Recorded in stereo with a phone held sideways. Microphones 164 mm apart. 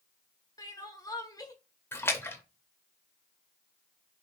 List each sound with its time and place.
0.6 s crying: 20° left (ahead or behind), 0.6 m
1.9 s a splash: 15° left (ahead or behind), 0.5 m